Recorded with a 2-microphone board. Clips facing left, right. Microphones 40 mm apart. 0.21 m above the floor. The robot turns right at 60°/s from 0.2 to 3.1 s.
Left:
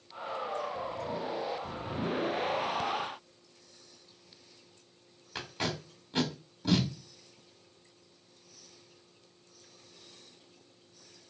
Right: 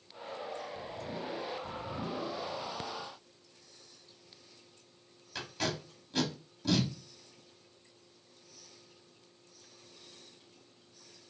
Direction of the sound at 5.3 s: 20° left (ahead or behind).